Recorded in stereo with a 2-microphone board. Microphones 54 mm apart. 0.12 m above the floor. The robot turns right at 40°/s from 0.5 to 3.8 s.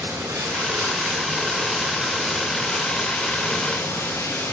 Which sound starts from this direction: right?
Running water, at 0.0 s.